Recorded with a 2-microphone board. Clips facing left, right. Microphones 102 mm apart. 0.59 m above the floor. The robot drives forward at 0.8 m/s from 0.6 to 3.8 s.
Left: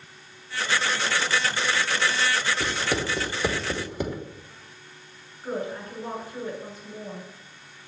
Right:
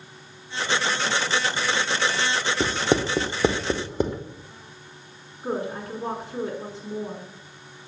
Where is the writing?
40° right (ahead or behind), 1.7 m; by 4.2 s 30° right (ahead or behind), 2.5 m.